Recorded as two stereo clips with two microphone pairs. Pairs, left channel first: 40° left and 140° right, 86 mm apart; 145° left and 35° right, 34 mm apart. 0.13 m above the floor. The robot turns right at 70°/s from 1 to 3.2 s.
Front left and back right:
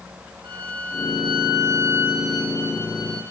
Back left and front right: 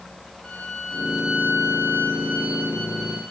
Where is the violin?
135° right, 5.5 m; by 3.2 s 20° left, 5.5 m.